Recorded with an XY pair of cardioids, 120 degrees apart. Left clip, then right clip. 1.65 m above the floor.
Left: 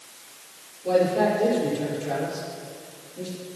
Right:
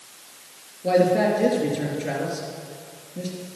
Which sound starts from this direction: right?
A man speaking, at 0.8 s.